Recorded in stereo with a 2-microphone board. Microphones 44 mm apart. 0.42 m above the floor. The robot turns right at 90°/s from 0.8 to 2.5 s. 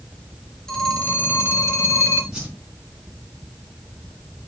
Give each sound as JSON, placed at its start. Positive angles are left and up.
{"t": 0.7, "sound": "a phone ringing", "azimuth_deg": 10, "distance_m": 3.5}
{"t": 2.3, "sound": "a whoosh", "side_deg": -15, "distance_m": 4.0}